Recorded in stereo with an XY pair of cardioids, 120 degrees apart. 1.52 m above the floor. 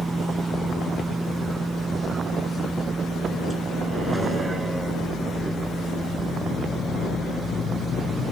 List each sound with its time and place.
0.0 s a vehicle: 20° right